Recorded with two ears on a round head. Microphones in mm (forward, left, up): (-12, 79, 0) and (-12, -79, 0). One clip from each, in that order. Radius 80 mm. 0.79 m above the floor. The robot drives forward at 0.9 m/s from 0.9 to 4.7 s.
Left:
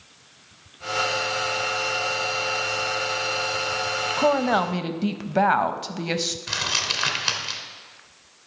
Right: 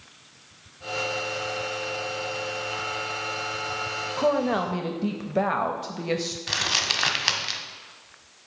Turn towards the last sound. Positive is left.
turn(degrees=-15)  # may be behind; listen again after turning